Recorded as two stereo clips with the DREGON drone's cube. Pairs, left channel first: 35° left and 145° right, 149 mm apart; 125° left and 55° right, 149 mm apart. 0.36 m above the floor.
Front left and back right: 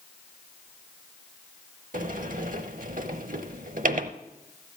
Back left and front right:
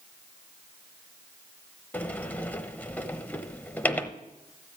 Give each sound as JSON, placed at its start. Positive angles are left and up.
{"t": 1.9, "sound": "a sliding door", "azimuth_deg": -160, "distance_m": 0.7}